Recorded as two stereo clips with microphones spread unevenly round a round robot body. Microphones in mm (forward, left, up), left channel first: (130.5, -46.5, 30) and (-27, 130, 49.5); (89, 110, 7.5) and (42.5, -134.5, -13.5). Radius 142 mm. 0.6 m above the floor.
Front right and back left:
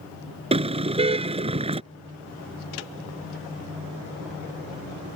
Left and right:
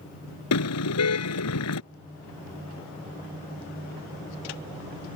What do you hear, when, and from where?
0.5 s a car horn: 70° left